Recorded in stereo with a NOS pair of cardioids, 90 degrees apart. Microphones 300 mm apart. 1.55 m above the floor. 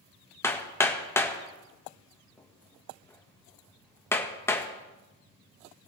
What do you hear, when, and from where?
0.4 s hammering: 5° left, 1.6 m